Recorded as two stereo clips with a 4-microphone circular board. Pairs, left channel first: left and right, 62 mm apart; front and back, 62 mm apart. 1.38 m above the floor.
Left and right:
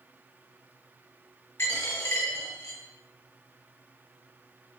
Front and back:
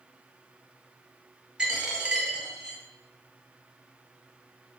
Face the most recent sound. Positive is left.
turn(degrees=115)